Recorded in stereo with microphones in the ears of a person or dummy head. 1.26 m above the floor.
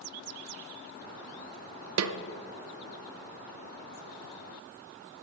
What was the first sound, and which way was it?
A snare drum, 80° right.